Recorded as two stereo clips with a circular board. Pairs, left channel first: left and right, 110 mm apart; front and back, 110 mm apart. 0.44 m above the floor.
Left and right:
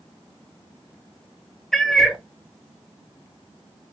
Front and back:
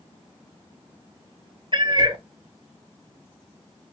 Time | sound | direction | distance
1.7 | a cat meowing | 175° left | 0.6 m